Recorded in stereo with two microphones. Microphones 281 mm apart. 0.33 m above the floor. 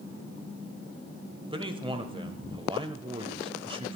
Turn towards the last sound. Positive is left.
turn(degrees=-20)  # may be behind; listen again after turning